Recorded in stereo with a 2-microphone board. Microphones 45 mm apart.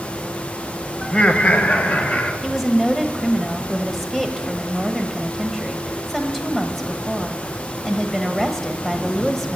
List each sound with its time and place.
1.0 s laughter: 15° left (ahead or behind), 0.9 m; by 2.3 s 45° left (ahead or behind), 1.8 m
2.4 s a woman speaking: 5° left (ahead or behind), 1.4 m